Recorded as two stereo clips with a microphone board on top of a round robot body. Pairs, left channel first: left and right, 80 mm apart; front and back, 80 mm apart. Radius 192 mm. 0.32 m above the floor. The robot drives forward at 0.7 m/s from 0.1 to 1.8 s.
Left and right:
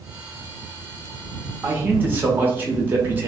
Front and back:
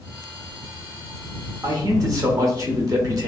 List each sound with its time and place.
1.6 s a man speaking: 145° right, 1.2 m; by 3.3 s 150° right, 1.3 m